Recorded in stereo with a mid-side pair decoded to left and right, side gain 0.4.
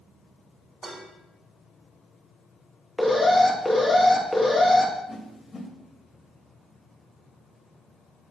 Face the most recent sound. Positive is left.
turn(degrees=45)